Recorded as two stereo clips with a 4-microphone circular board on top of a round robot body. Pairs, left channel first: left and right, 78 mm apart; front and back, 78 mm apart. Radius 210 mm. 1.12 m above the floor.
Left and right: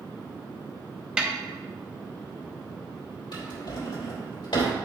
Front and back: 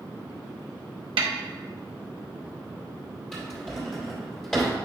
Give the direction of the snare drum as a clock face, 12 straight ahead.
6 o'clock.